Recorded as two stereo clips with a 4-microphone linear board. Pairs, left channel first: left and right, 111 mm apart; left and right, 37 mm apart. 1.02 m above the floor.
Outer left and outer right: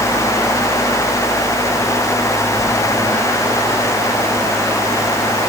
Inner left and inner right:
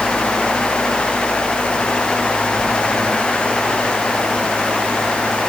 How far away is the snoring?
No snoring in this recording.